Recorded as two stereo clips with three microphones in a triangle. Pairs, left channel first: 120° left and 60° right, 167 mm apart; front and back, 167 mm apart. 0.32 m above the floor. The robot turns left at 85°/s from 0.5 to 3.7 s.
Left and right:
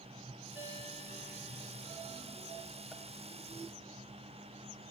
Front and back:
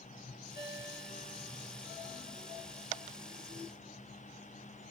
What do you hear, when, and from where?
0.6 s a ringtone: 20° left, 2 m; by 1.8 s 85° right, 2 m